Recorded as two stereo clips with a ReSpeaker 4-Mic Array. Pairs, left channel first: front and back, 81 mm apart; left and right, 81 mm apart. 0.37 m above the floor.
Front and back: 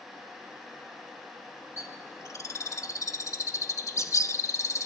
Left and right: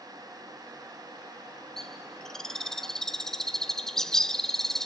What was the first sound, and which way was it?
A bird, 10° left.